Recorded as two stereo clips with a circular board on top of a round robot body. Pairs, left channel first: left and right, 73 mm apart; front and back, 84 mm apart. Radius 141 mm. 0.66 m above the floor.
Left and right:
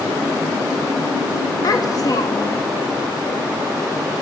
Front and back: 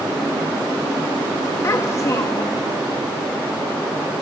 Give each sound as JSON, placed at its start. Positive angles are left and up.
{"t": 1.6, "sound": "a child speaking", "azimuth_deg": 50, "distance_m": 0.7}